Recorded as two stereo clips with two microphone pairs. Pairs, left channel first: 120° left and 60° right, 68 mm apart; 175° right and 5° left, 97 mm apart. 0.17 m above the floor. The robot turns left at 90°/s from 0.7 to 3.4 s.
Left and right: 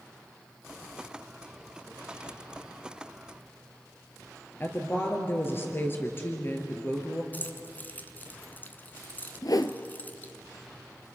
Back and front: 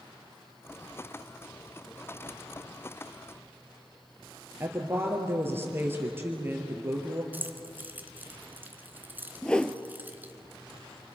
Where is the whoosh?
105° left, 1.0 m.